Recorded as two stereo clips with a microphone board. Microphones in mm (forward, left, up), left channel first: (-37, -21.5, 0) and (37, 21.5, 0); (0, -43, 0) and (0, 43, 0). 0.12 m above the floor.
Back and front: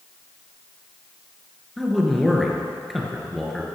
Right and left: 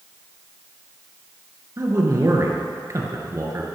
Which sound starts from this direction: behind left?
A man speaking, at 1.8 s.